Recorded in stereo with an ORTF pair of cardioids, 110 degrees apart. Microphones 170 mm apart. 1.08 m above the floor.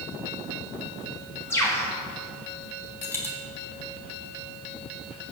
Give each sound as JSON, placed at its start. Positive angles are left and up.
{"t": 1.5, "sound": "a bird", "azimuth_deg": 15, "distance_m": 3.0}
{"t": 3.0, "sound": "a dropped coin", "azimuth_deg": 15, "distance_m": 3.5}